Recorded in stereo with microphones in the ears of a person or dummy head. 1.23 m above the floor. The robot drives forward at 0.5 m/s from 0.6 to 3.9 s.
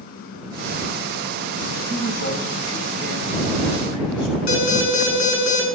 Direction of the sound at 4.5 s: 80° left.